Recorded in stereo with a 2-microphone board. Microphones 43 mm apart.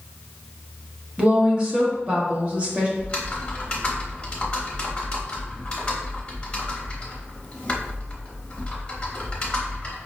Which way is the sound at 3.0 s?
25° left (ahead or behind).